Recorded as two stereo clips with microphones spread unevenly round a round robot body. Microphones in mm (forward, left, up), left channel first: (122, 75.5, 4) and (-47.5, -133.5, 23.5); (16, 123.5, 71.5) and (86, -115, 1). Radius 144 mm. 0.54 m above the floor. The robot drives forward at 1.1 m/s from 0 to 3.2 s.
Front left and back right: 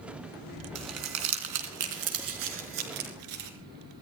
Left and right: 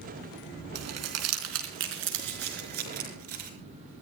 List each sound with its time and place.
0.8 s crumpling: 95° right, 3 m; by 3.5 s 135° right, 4.5 m